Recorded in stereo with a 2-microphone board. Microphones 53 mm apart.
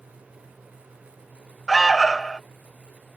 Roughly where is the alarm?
Centre.